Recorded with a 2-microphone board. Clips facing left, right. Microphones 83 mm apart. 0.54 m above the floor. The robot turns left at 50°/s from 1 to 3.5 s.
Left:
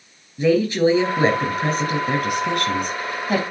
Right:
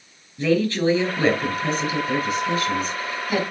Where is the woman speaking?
165° left, 4 m; by 3.4 s 45° left, 4 m.